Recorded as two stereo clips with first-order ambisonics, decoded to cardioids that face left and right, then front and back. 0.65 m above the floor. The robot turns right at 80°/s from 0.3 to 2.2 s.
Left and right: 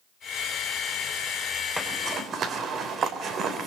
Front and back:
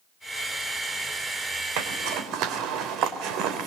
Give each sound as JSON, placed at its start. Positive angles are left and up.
{"t": 1.8, "sound": "a zipper", "azimuth_deg": 180, "distance_m": 3.0}